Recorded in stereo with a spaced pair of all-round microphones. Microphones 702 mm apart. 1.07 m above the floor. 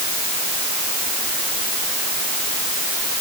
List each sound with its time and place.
Only background noise.